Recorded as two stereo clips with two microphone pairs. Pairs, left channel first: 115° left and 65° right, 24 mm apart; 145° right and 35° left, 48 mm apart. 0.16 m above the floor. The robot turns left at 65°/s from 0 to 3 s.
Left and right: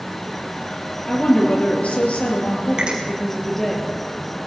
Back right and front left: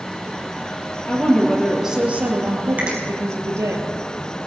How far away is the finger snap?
About 4 m.